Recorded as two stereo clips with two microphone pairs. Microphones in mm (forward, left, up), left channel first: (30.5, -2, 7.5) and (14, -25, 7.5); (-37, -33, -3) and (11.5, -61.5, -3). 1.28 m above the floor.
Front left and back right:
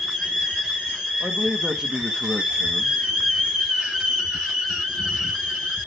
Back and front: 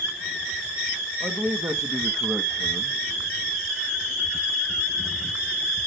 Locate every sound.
1.2 s a man speaking: 60° right, 1.8 m